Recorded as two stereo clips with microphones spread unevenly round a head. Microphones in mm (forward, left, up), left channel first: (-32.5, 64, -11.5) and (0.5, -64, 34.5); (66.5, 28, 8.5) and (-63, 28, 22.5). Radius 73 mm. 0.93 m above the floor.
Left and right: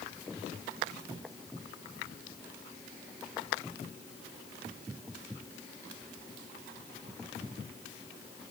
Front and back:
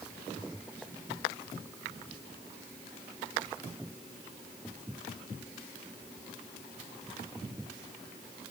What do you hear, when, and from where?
Only background noise.